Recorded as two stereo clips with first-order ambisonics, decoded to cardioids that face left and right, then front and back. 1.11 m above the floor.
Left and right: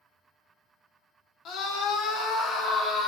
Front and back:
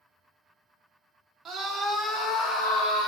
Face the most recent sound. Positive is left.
turn(degrees=20)